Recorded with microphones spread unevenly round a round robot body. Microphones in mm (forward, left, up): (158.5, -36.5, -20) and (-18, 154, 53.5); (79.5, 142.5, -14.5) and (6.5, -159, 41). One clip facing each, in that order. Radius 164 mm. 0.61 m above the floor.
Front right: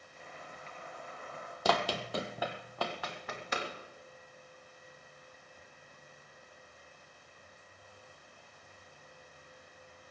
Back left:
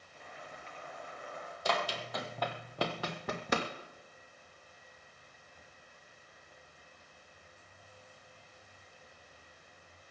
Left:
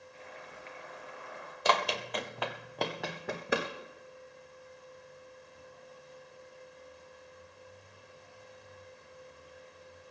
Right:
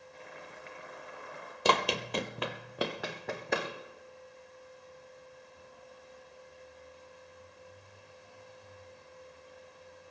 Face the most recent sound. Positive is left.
turn(degrees=165)